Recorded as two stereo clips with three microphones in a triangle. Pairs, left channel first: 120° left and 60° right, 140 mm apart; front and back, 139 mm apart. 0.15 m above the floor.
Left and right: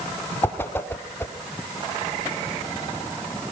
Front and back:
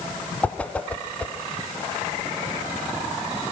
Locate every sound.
0.4 s a whoosh: 65° left, 1.1 m